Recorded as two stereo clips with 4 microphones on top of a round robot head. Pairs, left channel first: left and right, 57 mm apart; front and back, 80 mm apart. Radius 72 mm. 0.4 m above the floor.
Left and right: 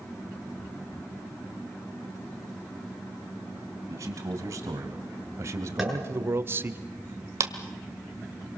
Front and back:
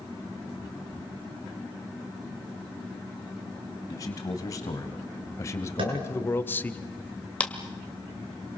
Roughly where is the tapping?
Behind.